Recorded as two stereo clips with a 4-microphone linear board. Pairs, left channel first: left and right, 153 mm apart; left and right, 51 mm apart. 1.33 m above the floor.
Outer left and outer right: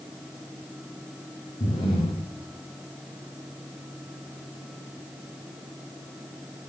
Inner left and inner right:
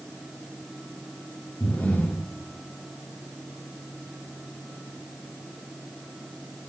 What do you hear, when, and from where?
1.6 s breathing: 35° left (ahead or behind), 3.5 m